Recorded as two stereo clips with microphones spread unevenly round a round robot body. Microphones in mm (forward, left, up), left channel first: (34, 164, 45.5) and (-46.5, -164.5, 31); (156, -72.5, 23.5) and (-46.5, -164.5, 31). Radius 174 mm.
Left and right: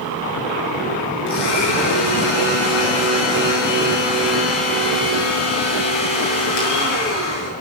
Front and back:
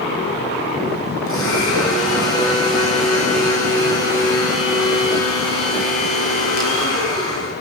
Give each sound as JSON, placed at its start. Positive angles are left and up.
{"t": 1.3, "sound": "a blender", "azimuth_deg": 70, "distance_m": 7.0}